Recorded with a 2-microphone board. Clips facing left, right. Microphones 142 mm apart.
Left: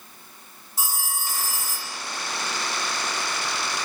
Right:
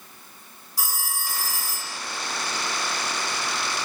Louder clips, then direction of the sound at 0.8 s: Left 1 dB; 25° left (ahead or behind).